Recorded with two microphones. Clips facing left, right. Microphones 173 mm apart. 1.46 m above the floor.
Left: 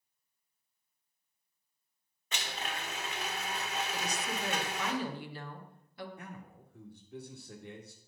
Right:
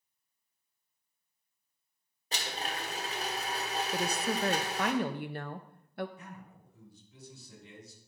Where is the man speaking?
60° left (ahead or behind), 1.9 m.